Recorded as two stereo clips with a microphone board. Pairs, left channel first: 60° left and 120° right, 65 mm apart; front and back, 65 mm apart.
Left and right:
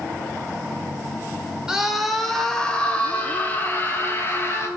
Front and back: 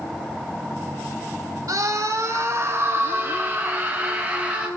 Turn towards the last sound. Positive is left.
turn(degrees=110)